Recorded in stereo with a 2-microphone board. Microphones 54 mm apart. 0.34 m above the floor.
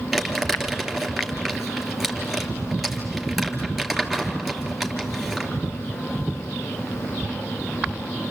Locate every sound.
0.1 s crumpling: centre (ahead or behind), 2.5 m